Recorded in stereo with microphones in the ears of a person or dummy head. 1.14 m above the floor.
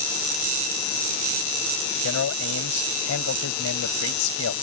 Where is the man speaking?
85° left.